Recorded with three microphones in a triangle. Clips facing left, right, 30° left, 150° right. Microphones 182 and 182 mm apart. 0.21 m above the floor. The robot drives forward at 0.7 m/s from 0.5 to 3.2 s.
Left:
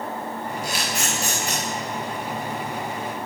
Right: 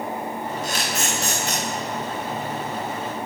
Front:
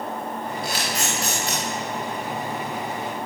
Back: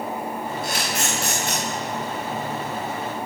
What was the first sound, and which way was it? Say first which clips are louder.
A camera shutter: right 1 dB, back 1 dB; 170° left.